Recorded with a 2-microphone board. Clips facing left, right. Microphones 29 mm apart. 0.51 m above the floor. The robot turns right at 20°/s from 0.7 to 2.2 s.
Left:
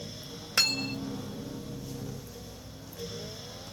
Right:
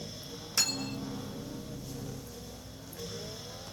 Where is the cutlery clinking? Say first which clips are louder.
Left 5 dB; 55° left (ahead or behind), 1.3 m; by 1.1 s 45° left (ahead or behind), 1.3 m.